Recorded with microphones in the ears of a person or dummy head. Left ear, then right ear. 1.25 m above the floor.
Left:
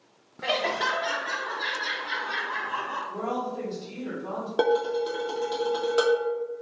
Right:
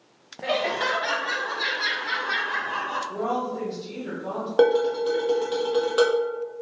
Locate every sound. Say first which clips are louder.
0.4 s laughter: right 1 dB; 25° left (ahead or behind), 0.6 m; by 3.0 s 30° right (ahead or behind), 1.6 m
3.1 s a woman speaking: right 3 dB; 15° right (ahead or behind), 1.6 m
4.6 s dishes clattering: right 4 dB; centre (ahead or behind), 0.8 m